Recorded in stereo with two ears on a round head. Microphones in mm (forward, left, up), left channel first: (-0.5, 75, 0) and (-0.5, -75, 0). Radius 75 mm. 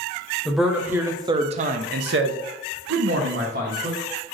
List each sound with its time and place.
0.5 s a man speaking: centre (ahead or behind), 0.8 m; by 4.0 s 60° right (ahead or behind), 1.2 m